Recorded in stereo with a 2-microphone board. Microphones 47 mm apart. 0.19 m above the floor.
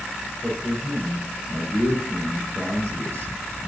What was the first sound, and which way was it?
A man speaking, 65° right (ahead or behind).